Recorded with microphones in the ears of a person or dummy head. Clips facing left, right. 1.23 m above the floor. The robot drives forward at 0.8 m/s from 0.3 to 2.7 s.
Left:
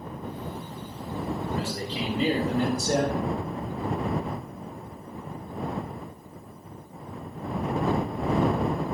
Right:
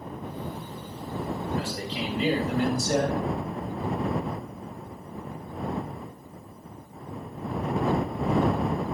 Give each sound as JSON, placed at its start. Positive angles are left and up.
{"t": 1.6, "sound": "a man speaking", "side_deg": 35, "distance_m": 4.0}